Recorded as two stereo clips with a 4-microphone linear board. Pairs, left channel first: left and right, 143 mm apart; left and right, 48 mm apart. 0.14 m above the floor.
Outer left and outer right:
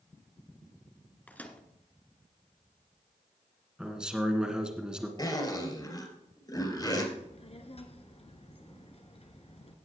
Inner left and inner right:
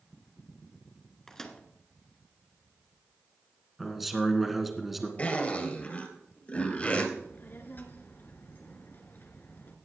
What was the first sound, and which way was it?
A microwave, 10° left (ahead or behind).